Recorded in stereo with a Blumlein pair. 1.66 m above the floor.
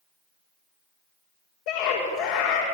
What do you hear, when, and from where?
1.7 s a scream: 40° left, 7 m